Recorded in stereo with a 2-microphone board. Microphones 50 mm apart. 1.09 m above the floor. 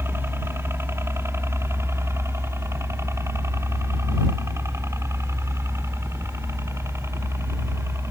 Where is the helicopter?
55° right (ahead or behind); by 8.1 s 65° right (ahead or behind).